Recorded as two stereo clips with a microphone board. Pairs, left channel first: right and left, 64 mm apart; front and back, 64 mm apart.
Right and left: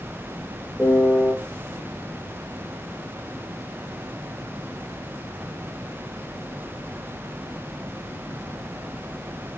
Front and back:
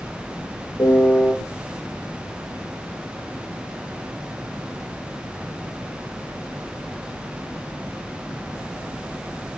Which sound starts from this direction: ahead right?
A piano, at 0.8 s.